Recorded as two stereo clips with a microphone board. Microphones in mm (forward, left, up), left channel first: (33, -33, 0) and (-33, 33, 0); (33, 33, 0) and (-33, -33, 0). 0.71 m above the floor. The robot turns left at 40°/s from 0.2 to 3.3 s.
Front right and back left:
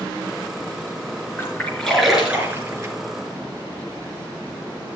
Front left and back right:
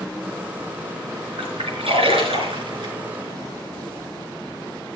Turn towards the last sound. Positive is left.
turn(degrees=170)